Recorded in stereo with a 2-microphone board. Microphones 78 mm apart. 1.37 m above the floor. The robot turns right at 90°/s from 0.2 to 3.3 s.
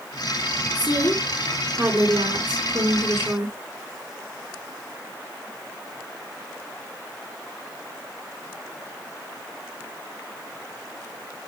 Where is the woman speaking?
110° left, 4 m; by 3.5 s 20° right, 4 m.